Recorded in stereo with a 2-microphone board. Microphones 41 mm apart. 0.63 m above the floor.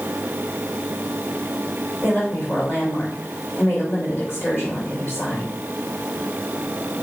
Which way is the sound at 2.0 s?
65° left (ahead or behind).